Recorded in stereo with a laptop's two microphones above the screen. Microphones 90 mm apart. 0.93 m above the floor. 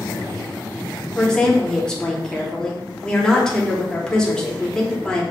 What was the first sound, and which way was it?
A woman speaking, 10° left (ahead or behind).